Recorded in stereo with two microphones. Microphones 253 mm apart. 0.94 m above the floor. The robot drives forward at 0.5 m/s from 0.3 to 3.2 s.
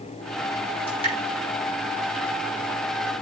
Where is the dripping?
20° left (ahead or behind), 7.5 m.